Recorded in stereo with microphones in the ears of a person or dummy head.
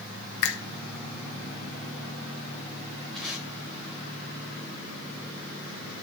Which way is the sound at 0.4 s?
70° left (ahead or behind).